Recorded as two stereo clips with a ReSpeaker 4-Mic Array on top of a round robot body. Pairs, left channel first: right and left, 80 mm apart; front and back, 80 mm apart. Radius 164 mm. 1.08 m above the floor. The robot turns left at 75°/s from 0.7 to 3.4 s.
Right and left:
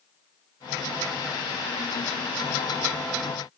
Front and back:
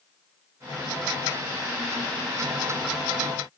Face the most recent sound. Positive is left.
No sound to turn to.